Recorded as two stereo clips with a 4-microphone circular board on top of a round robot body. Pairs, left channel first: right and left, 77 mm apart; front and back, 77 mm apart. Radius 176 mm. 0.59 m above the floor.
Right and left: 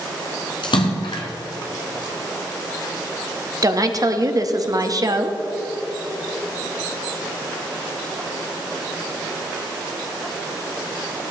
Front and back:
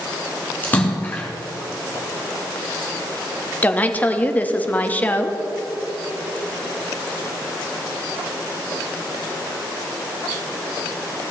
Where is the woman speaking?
65° left, 1.2 m.